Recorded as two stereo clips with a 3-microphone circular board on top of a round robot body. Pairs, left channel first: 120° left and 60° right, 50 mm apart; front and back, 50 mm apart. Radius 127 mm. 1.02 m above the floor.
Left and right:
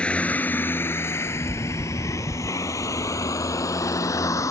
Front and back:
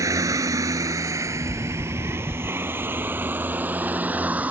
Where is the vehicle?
170° right; by 4.5 s 115° left.